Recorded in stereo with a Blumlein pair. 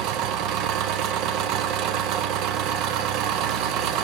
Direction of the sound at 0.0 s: 40° right.